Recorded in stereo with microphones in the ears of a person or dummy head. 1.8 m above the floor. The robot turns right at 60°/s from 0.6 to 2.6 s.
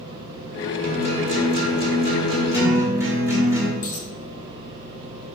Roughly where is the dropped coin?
Centre.